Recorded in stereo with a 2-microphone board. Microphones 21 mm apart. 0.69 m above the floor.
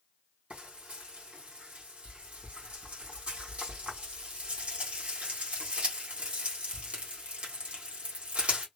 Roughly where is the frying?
Right.